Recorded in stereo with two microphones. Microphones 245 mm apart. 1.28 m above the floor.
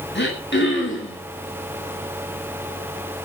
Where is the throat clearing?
50° left (ahead or behind), 9.5 m.